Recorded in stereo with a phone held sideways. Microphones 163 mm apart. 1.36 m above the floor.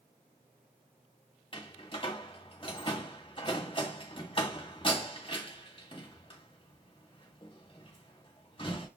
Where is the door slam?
35° left (ahead or behind), 1.8 m.